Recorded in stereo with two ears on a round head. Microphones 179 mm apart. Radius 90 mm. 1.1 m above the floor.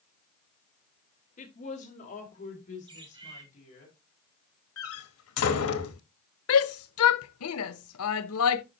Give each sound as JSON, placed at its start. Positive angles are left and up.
{"t": 1.4, "sound": "a woman speaking", "side_deg": 40, "distance_m": 1.8}
{"t": 2.9, "sound": "a bird", "side_deg": -25, "distance_m": 2.0}
{"t": 4.8, "sound": "a door slam", "side_deg": 85, "distance_m": 1.1}
{"t": 6.5, "sound": "a shout", "side_deg": 80, "distance_m": 0.7}